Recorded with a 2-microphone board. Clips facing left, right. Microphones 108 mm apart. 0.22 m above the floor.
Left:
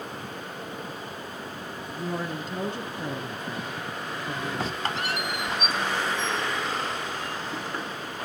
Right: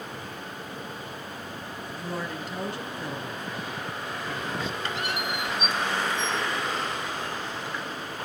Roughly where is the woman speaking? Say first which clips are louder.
Left 3 dB; centre.